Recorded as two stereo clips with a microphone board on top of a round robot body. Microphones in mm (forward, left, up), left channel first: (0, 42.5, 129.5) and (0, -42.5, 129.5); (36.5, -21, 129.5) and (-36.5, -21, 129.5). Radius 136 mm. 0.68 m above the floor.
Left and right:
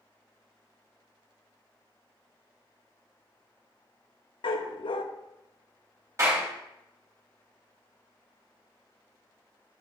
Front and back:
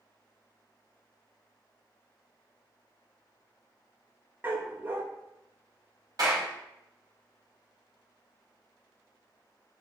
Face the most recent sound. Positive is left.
turn(degrees=-145)